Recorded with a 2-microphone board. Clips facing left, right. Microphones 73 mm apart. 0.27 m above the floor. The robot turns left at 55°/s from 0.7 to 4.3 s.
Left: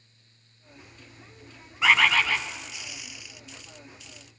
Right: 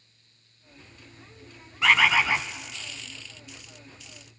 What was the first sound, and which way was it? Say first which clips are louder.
A bird: even; 5° left.